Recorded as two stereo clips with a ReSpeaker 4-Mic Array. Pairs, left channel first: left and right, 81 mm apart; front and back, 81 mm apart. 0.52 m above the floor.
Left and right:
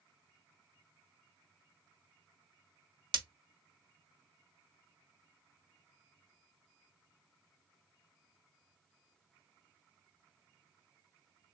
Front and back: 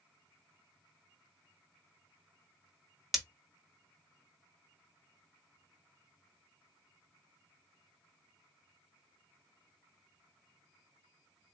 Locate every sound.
3.1 s breaking glass: 95° right, 1.4 m